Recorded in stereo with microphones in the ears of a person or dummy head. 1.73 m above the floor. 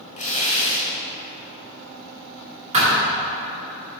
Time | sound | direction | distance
0.2 | tearing paper | 40° left (ahead or behind) | 1.1 m
2.7 | a thud | 30° right (ahead or behind) | 1.8 m